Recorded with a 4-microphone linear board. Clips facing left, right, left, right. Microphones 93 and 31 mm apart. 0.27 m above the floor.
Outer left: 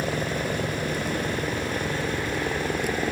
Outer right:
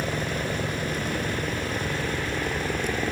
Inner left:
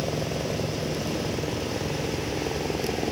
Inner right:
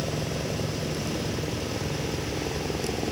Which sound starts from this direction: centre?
A helicopter, at 0.0 s.